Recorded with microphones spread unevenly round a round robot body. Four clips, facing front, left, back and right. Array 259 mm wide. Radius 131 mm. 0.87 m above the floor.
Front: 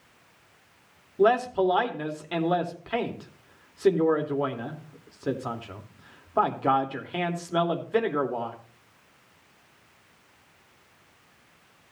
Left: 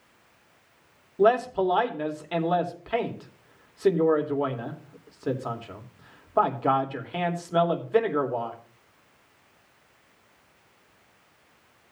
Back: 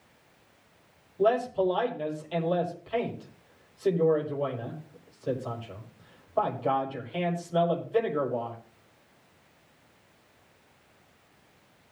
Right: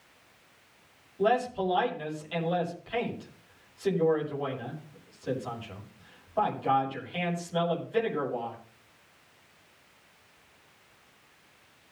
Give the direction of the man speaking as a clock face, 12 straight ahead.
11 o'clock.